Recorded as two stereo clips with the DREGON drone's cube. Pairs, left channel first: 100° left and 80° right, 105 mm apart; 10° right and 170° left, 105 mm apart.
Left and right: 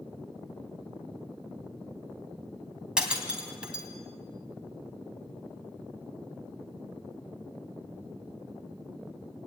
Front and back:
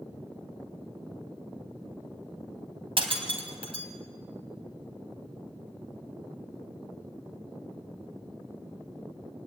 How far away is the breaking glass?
About 3 m.